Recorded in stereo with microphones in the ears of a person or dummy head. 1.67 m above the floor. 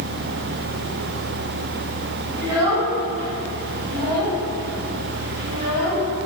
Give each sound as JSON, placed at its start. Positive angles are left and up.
{"t": 2.4, "sound": "a child speaking", "side_deg": -30, "distance_m": 1.5}